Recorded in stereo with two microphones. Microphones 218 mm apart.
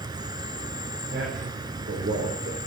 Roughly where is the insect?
Centre.